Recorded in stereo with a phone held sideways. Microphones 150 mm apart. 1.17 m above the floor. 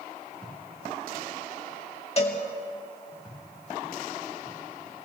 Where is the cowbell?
40° left (ahead or behind), 2.5 m.